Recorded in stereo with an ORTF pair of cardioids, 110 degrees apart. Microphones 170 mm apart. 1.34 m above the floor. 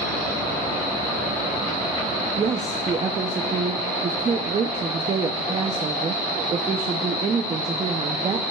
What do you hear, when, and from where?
2.4 s a woman speaking: 30° right, 0.6 m